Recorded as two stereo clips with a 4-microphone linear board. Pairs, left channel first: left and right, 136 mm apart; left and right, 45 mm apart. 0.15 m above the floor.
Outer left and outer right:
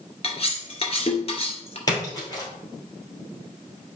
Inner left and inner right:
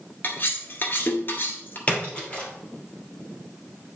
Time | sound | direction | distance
0.2 | cutlery clinking | 45° left (ahead or behind) | 1.5 m
1.9 | a splash | 25° left (ahead or behind) | 3.5 m